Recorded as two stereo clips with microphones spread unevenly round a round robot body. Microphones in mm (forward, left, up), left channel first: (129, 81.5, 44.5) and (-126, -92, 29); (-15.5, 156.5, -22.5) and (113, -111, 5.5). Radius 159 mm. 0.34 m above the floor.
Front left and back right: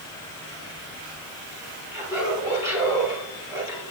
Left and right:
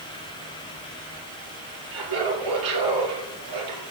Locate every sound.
1.9 s laughter: 65° right, 7.5 m